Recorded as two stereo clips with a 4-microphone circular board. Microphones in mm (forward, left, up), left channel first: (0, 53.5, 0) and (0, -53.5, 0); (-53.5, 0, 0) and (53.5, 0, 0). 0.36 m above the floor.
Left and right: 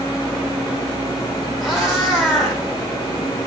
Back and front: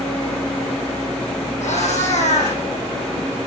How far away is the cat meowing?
About 9 m.